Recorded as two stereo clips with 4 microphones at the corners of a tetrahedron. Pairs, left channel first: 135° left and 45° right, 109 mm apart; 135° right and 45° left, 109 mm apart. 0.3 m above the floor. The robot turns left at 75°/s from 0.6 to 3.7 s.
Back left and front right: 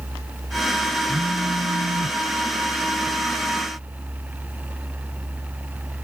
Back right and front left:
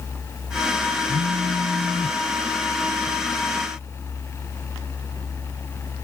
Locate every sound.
1.1 s a phone buzzing: 25° left; by 2.2 s 55° right